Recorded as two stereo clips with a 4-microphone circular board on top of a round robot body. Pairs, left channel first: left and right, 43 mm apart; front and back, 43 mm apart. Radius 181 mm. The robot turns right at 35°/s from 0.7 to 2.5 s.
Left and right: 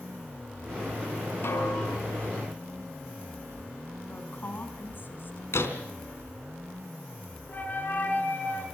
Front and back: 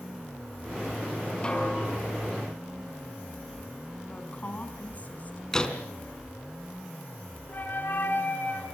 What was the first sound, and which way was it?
A snare drum, 65° left.